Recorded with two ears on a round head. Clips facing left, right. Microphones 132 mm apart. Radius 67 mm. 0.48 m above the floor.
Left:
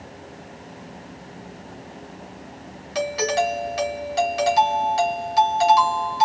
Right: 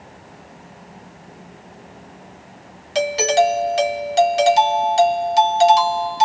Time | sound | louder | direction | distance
3.0 | a doorbell | right 6 dB | 30° right (ahead or behind) | 1.2 m